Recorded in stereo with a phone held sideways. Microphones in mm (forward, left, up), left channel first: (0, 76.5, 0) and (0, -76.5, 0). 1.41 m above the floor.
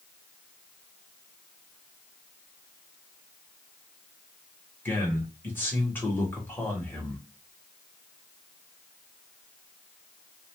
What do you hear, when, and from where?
4.8 s a man speaking: 15° left (ahead or behind), 1.3 m